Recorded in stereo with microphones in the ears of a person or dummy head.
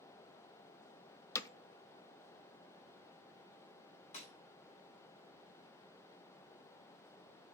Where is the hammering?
20° left (ahead or behind), 0.6 m.